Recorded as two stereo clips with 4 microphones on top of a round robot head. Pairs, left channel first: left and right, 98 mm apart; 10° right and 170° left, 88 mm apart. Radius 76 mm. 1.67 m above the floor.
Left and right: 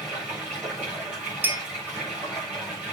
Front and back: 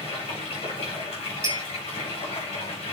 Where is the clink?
145° right, 0.7 m.